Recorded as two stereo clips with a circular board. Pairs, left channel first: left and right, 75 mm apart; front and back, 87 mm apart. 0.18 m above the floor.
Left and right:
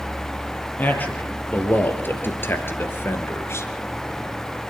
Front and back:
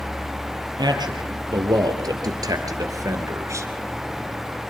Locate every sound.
0.8 s a man speaking: 155° left, 4 m; by 3.7 s 135° left, 2.5 m